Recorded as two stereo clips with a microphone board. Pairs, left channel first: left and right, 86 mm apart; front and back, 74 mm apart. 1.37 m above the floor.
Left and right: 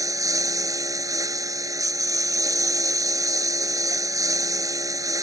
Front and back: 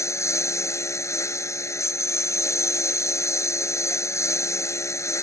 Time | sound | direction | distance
0.0 | a lawn mower | 45° right | ?